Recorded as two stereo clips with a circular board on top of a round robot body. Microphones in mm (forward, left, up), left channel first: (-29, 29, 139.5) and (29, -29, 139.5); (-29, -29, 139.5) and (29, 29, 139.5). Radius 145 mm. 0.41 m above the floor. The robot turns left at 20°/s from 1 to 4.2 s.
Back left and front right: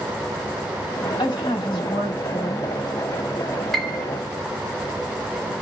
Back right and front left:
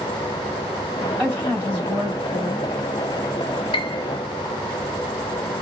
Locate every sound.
1.2 s a woman speaking: 120° left, 3 m; by 2.7 s 90° left, 3 m
3.7 s a piano: 140° right, 0.5 m; by 4.0 s 145° right, 0.5 m